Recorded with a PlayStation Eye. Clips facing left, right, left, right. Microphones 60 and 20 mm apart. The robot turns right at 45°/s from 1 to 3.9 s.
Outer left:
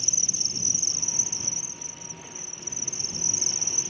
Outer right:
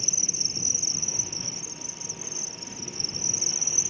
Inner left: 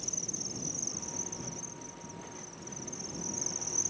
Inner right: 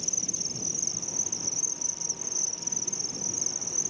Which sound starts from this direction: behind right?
An insect, at 0.0 s.